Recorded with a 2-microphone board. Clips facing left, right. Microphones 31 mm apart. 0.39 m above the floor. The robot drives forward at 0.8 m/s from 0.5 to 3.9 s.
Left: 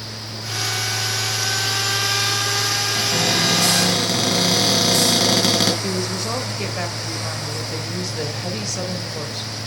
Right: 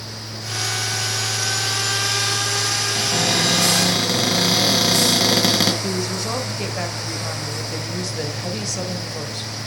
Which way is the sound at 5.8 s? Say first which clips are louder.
Even; 10° left (ahead or behind).